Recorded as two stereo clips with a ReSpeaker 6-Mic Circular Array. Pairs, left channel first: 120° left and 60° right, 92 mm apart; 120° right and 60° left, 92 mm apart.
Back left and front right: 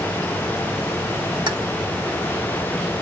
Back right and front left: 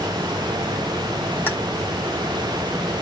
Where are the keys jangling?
55° right, 1.4 m.